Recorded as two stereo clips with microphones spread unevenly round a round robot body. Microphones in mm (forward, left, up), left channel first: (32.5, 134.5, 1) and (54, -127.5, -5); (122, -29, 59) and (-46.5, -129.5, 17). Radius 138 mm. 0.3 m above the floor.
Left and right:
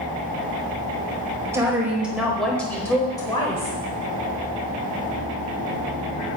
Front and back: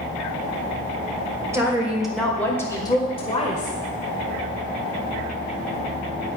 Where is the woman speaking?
150° right, 1.5 m; by 3.8 s 45° left, 1.5 m.